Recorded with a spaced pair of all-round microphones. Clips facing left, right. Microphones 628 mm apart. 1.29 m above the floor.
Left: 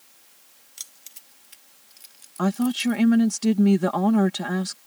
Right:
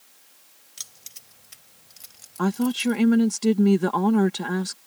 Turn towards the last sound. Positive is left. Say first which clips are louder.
# even
turn(degrees=5)  # may be behind; listen again after turning